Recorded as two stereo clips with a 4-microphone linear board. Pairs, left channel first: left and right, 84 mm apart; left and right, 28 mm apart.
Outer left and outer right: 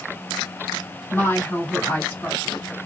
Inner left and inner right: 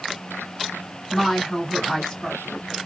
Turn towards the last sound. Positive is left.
turn(degrees=25)  # may be behind; listen again after turning